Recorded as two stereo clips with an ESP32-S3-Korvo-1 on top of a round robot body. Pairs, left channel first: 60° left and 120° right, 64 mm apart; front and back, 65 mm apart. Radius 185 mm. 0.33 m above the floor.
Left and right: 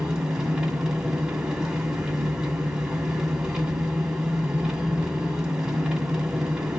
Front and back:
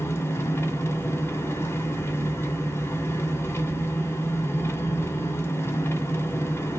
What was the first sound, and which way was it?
An engine running, 45° right.